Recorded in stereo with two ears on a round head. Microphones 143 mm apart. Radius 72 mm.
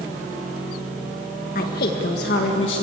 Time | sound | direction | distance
1.6 | a woman speaking | 55° left (ahead or behind) | 1.8 m